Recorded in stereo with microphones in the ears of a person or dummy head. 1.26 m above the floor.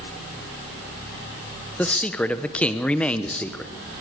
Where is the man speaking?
5° left (ahead or behind), 1.0 m.